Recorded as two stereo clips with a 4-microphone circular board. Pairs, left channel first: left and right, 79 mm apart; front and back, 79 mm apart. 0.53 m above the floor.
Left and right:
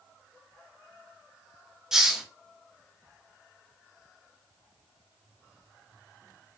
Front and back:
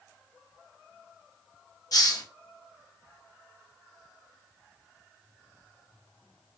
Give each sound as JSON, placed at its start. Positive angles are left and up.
{"t": 1.9, "sound": "a hiss", "azimuth_deg": -10, "distance_m": 0.6}